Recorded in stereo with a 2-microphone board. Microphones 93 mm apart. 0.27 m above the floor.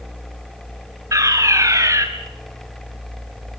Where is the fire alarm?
35° right (ahead or behind), 2.5 m.